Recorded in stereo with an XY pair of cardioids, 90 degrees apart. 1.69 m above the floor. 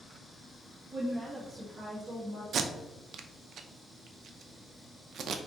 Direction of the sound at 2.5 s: 70° right.